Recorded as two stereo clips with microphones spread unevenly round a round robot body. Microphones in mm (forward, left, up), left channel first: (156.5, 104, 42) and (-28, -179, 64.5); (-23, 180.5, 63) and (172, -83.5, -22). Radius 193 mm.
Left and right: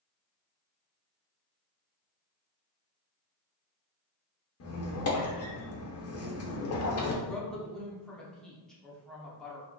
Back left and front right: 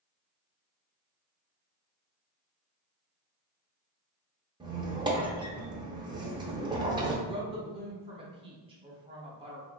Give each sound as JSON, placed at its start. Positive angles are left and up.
{"t": 4.6, "sound": "a squeak", "azimuth_deg": 15, "distance_m": 0.7}
{"t": 7.2, "sound": "a woman speaking", "azimuth_deg": -25, "distance_m": 0.9}